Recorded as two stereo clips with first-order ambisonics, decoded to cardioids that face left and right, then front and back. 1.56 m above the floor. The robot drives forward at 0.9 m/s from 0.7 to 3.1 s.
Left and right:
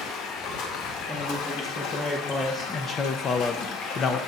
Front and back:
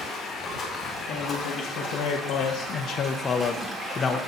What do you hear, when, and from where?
0.0 s running water: 55° left, 2.5 m; by 4.3 s 110° left, 2.5 m
1.1 s a man speaking: 5° left, 2 m; by 4.2 s 50° left, 0.6 m